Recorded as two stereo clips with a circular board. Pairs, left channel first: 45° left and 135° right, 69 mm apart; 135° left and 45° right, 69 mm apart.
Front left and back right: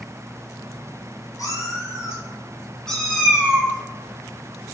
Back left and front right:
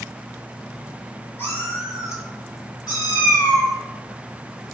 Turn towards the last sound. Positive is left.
turn(degrees=160)